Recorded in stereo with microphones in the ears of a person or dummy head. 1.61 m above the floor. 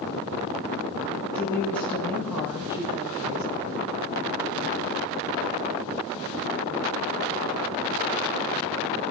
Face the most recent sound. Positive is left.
turn(degrees=-60)  # may be behind; listen again after turning